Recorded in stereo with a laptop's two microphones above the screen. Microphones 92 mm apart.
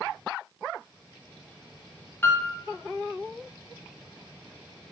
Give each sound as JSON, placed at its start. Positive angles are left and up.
{"t": 2.2, "sound": "a piano", "side_deg": 25, "distance_m": 0.5}